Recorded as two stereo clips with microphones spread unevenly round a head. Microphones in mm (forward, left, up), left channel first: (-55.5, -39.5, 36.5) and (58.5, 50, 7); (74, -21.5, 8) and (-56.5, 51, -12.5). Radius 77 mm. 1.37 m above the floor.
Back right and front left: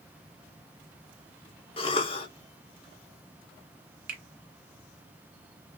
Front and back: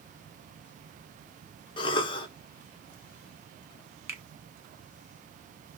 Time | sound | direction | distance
1.8 | a cough | 90° right | 1.0 m
4.1 | a finger snap | 75° left | 1.5 m